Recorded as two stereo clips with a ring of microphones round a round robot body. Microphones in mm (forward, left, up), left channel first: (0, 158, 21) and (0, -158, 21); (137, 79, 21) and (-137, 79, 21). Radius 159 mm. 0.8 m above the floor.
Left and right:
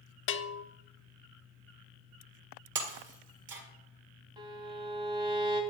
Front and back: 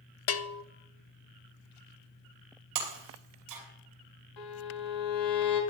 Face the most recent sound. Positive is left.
turn(degrees=-10)